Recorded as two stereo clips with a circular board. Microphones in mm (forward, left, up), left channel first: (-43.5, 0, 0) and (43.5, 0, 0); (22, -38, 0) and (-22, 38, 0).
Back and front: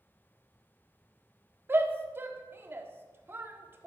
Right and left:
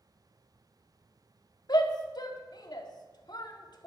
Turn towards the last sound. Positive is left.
turn(degrees=-55)